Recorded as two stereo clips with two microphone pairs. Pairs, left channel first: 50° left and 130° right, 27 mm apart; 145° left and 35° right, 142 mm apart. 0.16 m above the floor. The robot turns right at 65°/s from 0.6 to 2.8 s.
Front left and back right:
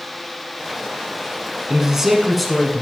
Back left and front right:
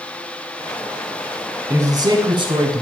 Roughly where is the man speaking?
Right.